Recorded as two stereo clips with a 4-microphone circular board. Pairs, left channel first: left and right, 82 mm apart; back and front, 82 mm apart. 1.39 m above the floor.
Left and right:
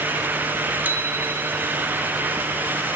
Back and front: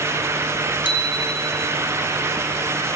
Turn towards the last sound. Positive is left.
turn(degrees=-160)